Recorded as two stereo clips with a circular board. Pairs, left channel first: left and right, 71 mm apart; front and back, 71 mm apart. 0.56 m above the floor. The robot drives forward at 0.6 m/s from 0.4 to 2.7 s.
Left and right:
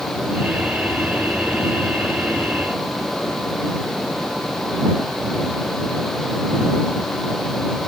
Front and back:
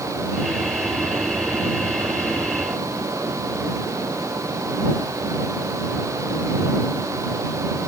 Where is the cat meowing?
I don't hear a cat meowing.